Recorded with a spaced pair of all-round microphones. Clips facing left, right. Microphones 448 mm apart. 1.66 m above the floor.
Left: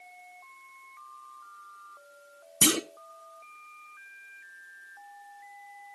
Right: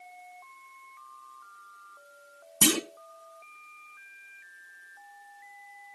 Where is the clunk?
5° right (ahead or behind), 0.9 m.